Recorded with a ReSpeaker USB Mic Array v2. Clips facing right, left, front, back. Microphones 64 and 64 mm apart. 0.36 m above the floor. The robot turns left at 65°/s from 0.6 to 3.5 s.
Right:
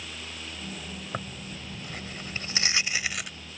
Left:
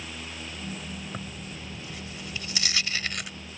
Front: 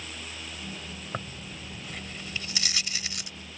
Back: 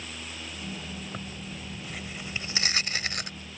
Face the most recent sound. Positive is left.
turn(degrees=165)